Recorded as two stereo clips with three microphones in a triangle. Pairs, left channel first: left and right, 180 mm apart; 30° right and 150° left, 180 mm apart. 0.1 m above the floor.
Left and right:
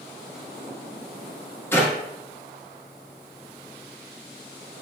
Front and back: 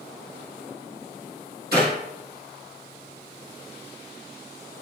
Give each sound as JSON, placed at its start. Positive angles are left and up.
{"t": 1.7, "sound": "a clap", "azimuth_deg": 165, "distance_m": 3.5}